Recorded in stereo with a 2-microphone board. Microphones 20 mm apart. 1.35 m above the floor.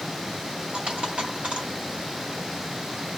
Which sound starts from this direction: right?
A dropped coin, at 0.7 s.